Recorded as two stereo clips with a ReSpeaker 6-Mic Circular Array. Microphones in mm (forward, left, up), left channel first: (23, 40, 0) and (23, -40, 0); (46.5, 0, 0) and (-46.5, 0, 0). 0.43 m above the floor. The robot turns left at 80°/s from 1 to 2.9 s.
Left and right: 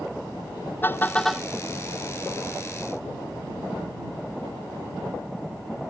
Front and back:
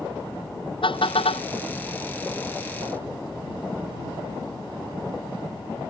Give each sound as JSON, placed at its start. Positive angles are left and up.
{"t": 0.8, "sound": "a car horn", "azimuth_deg": 25}